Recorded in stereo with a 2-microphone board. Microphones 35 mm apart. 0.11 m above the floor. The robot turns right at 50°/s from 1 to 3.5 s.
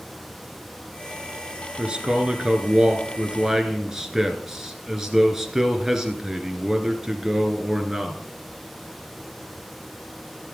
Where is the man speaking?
115° right, 1.3 m; by 8.2 s 30° right, 1.3 m.